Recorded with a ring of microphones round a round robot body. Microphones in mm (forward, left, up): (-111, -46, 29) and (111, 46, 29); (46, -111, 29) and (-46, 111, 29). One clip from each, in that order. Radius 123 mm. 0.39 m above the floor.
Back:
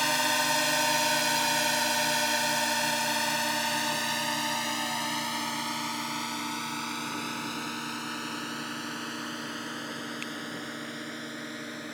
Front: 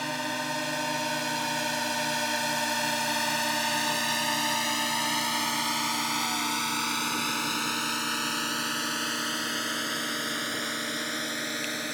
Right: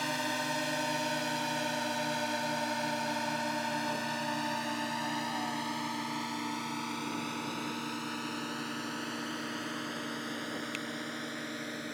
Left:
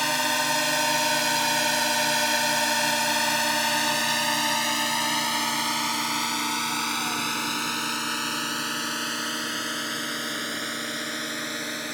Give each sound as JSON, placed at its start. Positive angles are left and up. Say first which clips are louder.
{"t": 0.0, "sound": "a drone", "louder": "back 5 dB, left 9 dB", "azimuth_deg": 160}